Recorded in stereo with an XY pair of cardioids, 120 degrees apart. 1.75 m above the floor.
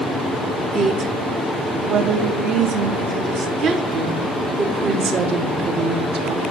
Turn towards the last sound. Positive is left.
turn(degrees=-60)